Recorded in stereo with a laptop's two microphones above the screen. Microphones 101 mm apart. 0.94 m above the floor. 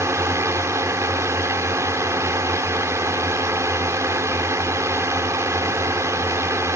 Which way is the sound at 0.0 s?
30° right (ahead or behind).